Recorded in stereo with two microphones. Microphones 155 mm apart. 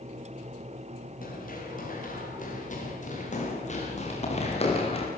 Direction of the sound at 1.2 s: 65° left (ahead or behind).